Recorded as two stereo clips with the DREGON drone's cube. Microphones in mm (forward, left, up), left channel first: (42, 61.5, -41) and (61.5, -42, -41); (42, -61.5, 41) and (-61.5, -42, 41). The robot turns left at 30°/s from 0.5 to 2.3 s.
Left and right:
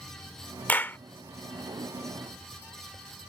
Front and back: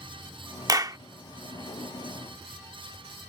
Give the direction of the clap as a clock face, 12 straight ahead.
7 o'clock.